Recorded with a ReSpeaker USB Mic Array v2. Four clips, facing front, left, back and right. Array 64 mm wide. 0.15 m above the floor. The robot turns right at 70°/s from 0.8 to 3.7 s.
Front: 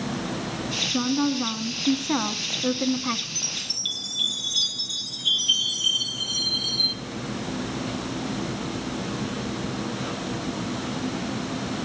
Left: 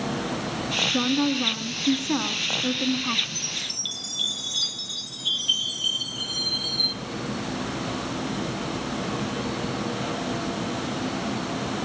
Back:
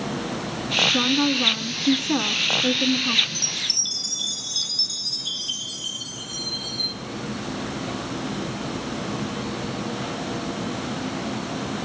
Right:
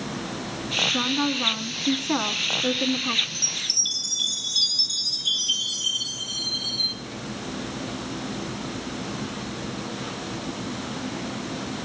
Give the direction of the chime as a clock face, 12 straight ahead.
11 o'clock.